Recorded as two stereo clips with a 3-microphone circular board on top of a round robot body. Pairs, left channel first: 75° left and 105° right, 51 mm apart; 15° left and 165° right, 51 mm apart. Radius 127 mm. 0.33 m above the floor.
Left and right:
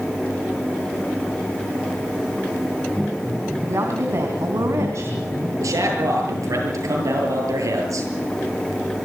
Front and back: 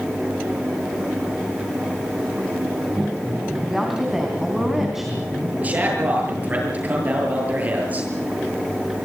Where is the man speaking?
105° right, 8 m.